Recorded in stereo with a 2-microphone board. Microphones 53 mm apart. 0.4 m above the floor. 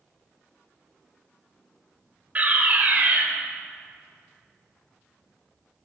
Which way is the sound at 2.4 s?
30° right (ahead or behind).